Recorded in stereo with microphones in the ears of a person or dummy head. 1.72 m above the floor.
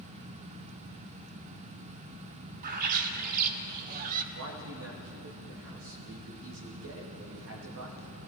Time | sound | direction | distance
2.6 | a bird | 40° right (ahead or behind) | 0.7 m
4.3 | a man speaking | 65° right (ahead or behind) | 1.9 m